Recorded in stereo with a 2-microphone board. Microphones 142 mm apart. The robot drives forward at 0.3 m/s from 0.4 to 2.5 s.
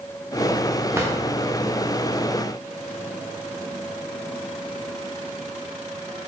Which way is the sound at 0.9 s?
20° right (ahead or behind).